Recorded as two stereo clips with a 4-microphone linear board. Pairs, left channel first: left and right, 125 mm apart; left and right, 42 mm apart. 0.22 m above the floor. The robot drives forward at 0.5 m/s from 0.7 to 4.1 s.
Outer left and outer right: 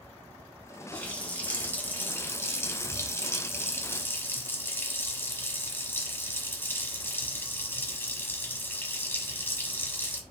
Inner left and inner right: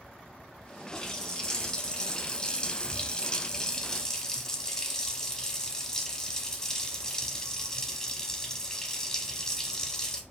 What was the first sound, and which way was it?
A running tap, 10° left (ahead or behind).